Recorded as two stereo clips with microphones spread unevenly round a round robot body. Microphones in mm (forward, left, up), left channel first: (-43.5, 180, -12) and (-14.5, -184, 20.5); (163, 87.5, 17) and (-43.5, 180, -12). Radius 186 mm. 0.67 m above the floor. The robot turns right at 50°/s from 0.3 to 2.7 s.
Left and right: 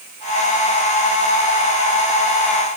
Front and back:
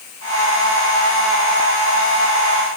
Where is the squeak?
No squeak in this recording.